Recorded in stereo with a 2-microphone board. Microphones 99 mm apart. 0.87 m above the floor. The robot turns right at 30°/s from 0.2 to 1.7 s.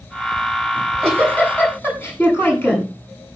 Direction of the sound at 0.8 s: 5° right (ahead or behind).